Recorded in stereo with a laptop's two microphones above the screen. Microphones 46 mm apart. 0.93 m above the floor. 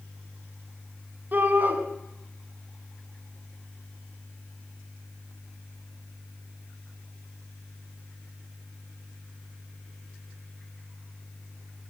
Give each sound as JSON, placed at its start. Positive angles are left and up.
{"t": 1.3, "sound": "a shout", "side_deg": -40, "distance_m": 7.0}